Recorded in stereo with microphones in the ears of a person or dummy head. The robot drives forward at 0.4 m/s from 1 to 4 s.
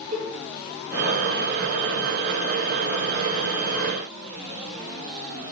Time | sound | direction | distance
0.1 | a cowbell | 50° right (ahead or behind) | 1.8 m